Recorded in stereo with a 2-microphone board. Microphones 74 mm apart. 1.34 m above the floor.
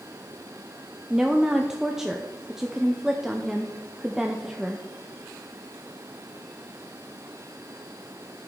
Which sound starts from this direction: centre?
A woman speaking, at 1.1 s.